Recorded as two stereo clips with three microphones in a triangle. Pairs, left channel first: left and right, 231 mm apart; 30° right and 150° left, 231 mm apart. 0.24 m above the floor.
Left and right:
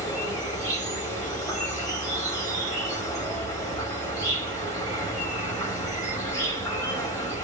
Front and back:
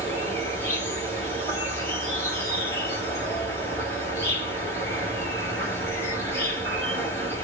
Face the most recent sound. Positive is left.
turn(degrees=35)